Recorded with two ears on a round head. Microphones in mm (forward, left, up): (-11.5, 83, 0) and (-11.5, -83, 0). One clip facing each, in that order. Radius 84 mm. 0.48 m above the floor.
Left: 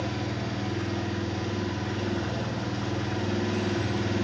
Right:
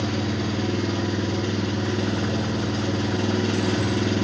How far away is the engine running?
About 2.5 m.